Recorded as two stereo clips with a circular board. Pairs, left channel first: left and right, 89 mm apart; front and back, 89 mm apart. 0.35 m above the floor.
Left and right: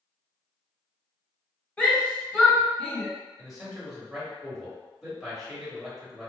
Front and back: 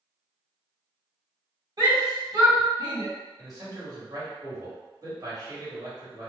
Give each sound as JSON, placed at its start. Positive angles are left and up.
{"t": 1.8, "sound": "a shout", "azimuth_deg": 160, "distance_m": 1.8}
{"t": 3.4, "sound": "a man speaking", "azimuth_deg": -175, "distance_m": 1.8}